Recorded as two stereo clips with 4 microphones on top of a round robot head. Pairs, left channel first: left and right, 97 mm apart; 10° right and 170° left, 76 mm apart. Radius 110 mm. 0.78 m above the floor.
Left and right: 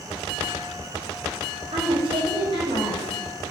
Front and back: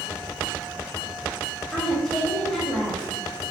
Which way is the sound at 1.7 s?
85° right.